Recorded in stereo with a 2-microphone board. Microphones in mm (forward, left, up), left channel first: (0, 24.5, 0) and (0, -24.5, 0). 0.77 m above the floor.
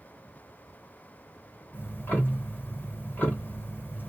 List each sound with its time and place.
1.7 s ticking: 40° left (ahead or behind), 1.2 m